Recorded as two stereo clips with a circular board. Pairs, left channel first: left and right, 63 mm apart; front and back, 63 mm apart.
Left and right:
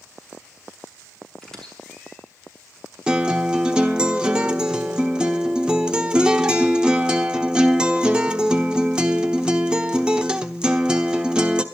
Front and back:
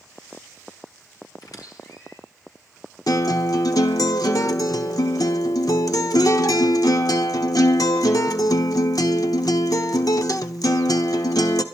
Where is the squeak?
10° left, 6 m.